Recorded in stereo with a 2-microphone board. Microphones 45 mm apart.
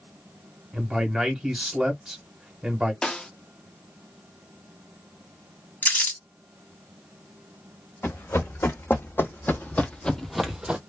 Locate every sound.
0.7 s a man speaking: 10° right (ahead or behind), 1.4 m
3.0 s a snare drum: 15° left (ahead or behind), 0.7 m
5.8 s crumpling: 40° left (ahead or behind), 1.7 m
8.0 s running footsteps: 65° left (ahead or behind), 1.6 m; by 10.8 s 25° right (ahead or behind), 0.6 m